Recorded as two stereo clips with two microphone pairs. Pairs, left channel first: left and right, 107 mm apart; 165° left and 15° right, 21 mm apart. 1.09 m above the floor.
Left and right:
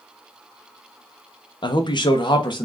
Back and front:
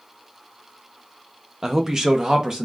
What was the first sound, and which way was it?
A man speaking, 50° left.